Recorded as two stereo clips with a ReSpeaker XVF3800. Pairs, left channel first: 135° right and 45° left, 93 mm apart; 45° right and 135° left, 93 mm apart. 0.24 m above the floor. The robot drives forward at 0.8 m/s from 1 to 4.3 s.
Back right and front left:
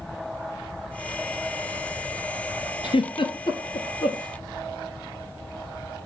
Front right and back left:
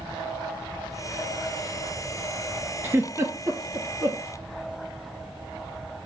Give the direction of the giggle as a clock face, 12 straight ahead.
5 o'clock.